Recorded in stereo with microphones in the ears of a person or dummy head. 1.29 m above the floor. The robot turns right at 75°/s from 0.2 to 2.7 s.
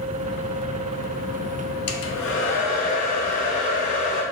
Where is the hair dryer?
85° left, 0.6 m; by 4.2 s 145° left, 0.6 m.